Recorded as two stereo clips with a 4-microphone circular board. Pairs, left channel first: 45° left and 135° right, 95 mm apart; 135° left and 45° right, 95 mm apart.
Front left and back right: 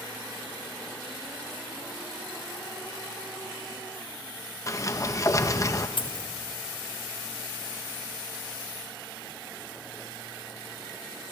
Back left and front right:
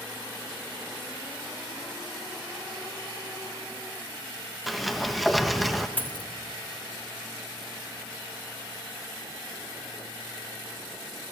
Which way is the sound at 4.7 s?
45° left.